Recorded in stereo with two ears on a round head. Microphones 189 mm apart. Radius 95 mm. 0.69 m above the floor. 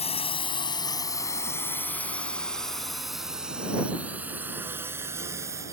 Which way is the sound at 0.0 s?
30° left (ahead or behind).